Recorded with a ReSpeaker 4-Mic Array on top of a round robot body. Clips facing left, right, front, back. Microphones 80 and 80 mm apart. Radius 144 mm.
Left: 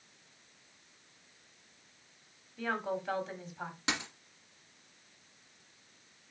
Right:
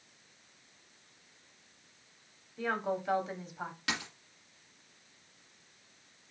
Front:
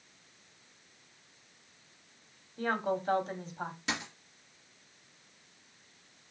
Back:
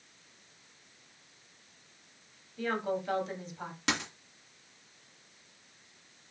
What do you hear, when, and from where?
2.6 s a woman speaking: 20° right, 1.5 m
3.9 s a dropped coin: 160° left, 1.9 m